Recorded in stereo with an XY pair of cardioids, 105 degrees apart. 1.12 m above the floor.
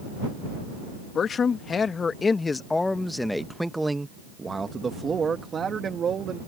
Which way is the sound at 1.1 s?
50° left.